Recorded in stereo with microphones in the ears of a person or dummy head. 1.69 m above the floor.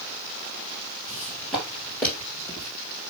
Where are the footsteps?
10° right (ahead or behind), 2.5 m; by 2.7 s 20° left (ahead or behind), 2.5 m.